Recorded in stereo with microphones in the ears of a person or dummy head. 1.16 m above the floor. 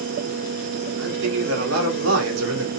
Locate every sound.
1.0 s a man speaking: 70° right (ahead or behind), 3.5 m; by 2.7 s 85° right, 3.5 m